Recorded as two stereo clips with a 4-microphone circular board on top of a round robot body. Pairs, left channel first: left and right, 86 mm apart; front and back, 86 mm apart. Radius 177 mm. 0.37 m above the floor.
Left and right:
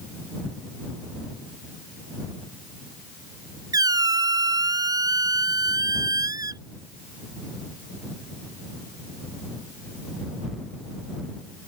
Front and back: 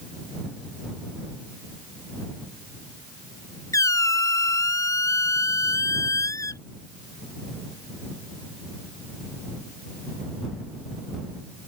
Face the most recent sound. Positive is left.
turn(degrees=-50)